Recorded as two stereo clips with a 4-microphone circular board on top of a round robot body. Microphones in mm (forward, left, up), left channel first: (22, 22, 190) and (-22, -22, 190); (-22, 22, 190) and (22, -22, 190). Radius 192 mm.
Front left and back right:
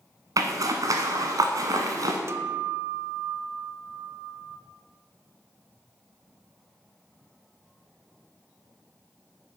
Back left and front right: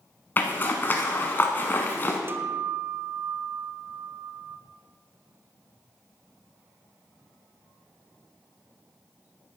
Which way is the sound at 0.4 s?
165° right.